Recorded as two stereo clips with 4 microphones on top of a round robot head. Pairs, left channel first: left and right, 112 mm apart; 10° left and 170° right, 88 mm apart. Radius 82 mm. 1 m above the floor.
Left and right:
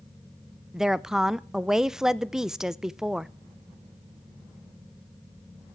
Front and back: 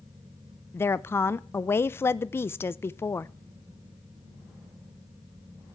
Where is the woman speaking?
10° right, 0.6 m.